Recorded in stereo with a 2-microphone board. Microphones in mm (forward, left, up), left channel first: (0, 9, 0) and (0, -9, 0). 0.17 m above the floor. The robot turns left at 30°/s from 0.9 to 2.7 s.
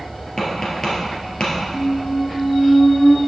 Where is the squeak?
65° left (ahead or behind), 0.6 m; by 3.2 s 55° left (ahead or behind), 0.6 m.